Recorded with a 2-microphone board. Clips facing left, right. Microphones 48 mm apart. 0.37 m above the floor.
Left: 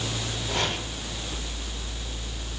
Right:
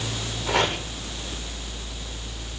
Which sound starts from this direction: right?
Chopping, at 0.5 s.